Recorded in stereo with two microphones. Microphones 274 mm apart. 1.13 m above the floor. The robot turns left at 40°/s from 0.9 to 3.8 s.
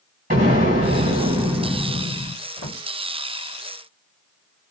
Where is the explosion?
150° right, 2 m; by 2.4 s 155° left, 2 m.